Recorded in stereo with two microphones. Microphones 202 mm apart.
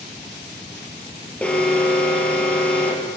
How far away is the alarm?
About 3.5 m.